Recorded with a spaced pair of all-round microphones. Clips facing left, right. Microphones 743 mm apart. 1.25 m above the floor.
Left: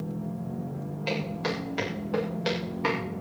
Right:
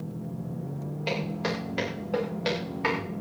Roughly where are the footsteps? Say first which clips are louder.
Even; centre.